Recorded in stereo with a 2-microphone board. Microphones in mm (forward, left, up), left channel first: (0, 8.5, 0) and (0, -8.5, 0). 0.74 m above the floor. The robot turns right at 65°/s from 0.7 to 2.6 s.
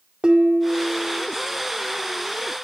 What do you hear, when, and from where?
0.2 s dishes clattering: 60° right, 1.3 m; by 1.3 s 25° right, 1.3 m